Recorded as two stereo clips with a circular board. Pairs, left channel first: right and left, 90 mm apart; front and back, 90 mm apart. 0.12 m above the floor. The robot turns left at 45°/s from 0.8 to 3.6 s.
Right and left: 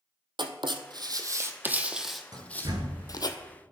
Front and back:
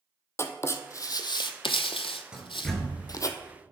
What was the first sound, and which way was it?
Writing, 60° left.